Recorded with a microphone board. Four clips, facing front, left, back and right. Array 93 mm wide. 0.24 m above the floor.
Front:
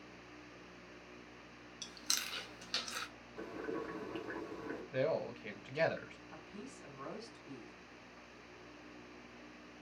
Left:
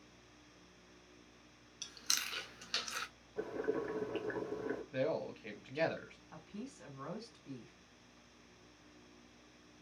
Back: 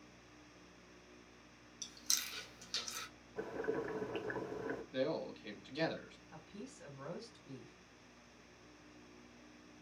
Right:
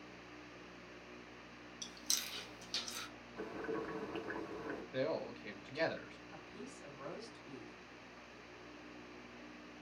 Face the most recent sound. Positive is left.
turn(degrees=65)